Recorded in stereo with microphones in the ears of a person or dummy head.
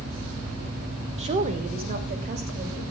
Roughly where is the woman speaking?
Right.